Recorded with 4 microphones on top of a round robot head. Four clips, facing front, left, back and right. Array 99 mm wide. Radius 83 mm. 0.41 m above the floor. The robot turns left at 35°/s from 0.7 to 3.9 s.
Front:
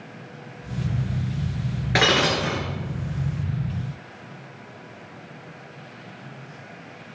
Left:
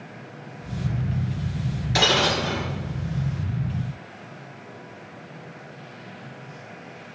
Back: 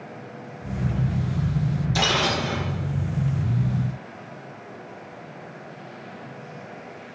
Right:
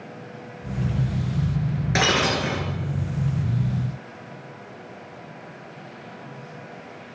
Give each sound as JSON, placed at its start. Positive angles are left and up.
{"t": 1.9, "sound": "breaking glass", "azimuth_deg": -30, "distance_m": 2.5}